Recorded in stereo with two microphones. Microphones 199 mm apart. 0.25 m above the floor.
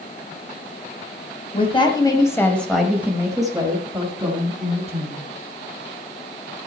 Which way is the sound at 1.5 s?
30° left (ahead or behind).